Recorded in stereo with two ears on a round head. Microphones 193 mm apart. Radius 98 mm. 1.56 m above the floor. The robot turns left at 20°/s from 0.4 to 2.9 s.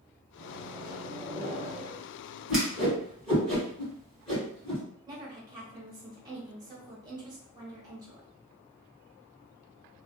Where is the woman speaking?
20° right (ahead or behind), 1.2 m.